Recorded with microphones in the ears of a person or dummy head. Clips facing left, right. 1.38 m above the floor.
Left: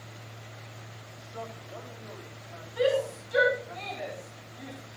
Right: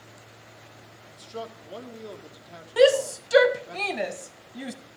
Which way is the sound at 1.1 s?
50° right (ahead or behind).